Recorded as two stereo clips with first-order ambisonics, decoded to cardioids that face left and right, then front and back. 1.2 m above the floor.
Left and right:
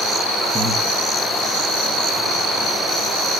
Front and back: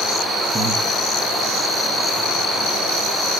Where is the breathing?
150° right, 0.6 m.